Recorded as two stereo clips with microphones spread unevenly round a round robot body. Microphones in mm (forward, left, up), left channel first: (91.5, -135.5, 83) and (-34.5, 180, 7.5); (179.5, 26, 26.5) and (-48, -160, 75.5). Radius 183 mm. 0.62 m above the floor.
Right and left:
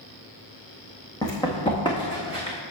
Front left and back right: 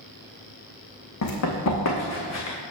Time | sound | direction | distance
1.2 | running footsteps | 5° left | 2.0 m